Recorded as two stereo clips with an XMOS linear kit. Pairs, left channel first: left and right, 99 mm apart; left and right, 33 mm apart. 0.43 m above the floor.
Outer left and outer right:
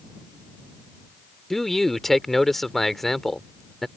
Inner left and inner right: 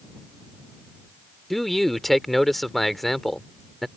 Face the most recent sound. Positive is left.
turn(degrees=0)  # may be behind; listen again after turning